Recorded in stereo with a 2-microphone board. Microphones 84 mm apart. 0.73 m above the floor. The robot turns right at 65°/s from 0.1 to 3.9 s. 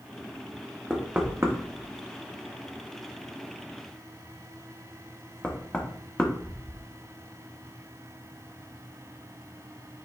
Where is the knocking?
Centre (ahead or behind), 0.8 m; by 6.8 s 15° left (ahead or behind), 0.8 m.